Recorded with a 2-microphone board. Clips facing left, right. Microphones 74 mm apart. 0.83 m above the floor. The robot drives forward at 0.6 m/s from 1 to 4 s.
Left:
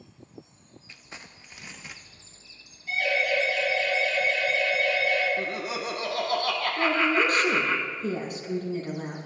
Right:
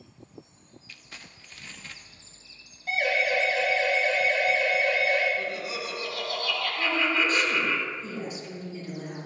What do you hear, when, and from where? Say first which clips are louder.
0.9 s crumpling: left 2 dB; 25° left (ahead or behind), 0.6 m; by 2.0 s 15° left (ahead or behind), 1.1 m
2.9 s a siren: right 1 dB; 60° right (ahead or behind), 7 m; by 5.3 s 45° right (ahead or behind), 8 m
5.4 s laughter: left 2 dB; 55° left (ahead or behind), 1.7 m
6.8 s a woman speaking: left 3 dB; 65° left (ahead or behind), 6.5 m